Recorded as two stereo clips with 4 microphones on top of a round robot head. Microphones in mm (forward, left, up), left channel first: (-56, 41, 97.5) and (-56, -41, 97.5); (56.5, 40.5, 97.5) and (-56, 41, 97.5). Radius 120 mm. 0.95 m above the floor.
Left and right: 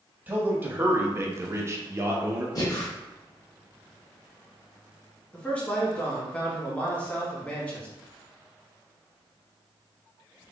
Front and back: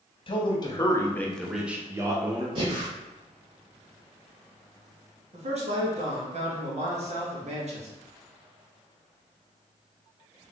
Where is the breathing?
135° left, 1.9 m.